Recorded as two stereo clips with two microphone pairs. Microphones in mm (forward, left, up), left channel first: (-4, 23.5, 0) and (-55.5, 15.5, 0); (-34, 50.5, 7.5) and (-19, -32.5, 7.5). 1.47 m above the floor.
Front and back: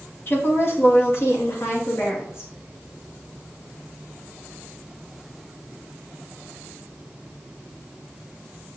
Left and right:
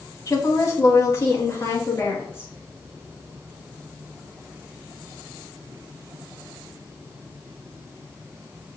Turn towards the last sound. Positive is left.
turn(degrees=40)